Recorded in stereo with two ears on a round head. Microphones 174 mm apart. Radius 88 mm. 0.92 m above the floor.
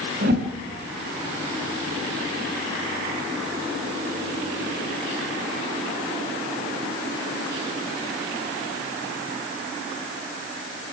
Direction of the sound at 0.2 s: 50° right (ahead or behind).